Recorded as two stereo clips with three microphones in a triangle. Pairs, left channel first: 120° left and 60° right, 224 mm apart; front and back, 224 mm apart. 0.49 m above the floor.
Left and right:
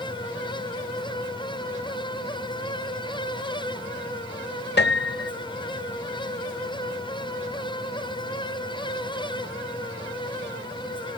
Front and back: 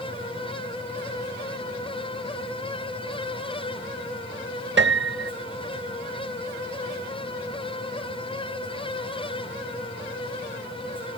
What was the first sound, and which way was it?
A piano, 155° left.